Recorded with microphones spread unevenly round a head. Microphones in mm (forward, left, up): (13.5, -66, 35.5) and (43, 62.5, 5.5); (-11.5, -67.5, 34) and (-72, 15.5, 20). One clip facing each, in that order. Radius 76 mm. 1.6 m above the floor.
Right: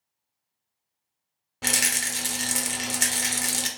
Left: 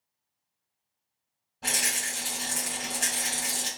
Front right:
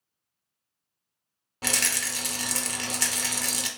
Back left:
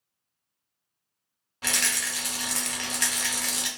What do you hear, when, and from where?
1.6 s a rattle: 105° right, 0.8 m